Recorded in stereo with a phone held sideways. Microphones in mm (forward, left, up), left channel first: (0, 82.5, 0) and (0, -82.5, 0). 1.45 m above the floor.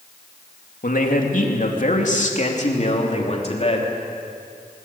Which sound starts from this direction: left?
A man speaking, at 0.8 s.